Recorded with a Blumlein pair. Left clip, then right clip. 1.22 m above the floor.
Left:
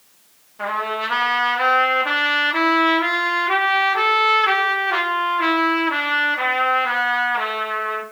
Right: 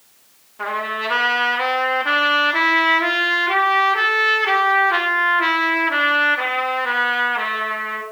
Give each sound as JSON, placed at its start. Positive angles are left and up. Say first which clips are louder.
{"t": 0.6, "sound": "a trumpet", "louder": "even", "azimuth_deg": 5, "distance_m": 1.6}